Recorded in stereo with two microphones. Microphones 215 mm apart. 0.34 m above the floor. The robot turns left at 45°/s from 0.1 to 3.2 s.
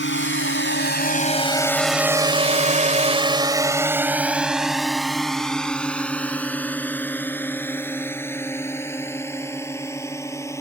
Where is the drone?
65° left (ahead or behind); by 10.6 s 15° left (ahead or behind).